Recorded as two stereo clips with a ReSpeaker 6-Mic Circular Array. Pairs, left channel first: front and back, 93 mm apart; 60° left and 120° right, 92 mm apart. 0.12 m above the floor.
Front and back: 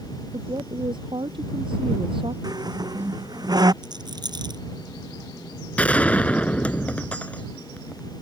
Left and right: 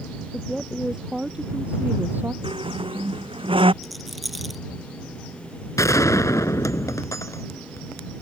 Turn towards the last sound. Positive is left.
turn(degrees=65)